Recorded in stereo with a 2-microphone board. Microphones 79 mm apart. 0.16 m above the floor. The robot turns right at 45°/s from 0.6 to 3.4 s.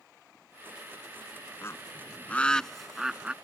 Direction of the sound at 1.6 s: 35° left (ahead or behind).